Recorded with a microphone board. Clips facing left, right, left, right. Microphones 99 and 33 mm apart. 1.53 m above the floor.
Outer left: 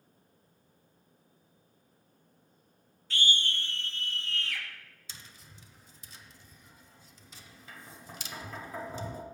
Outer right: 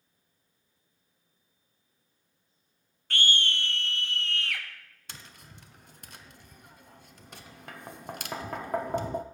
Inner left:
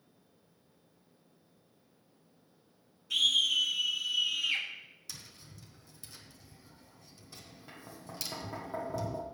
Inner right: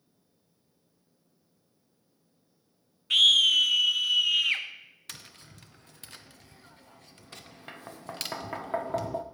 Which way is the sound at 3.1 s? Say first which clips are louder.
Outer right 3 dB, inner right 7 dB; 60° right (ahead or behind).